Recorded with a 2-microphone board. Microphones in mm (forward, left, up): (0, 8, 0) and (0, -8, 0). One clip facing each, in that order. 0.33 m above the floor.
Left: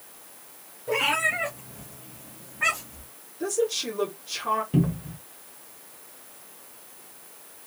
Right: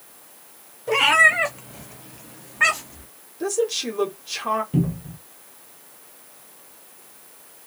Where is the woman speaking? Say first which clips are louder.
Right 3 dB; 15° right (ahead or behind), 1.3 m.